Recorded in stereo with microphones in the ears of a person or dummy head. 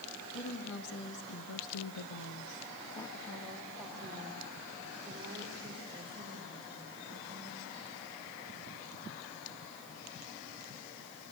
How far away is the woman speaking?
About 2.5 m.